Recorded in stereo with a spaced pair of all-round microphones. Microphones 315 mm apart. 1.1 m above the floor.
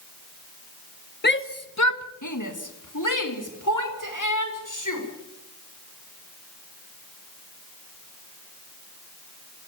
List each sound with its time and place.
1.2 s a shout: 30° left (ahead or behind), 1.1 m; by 5.0 s 75° left (ahead or behind), 5.5 m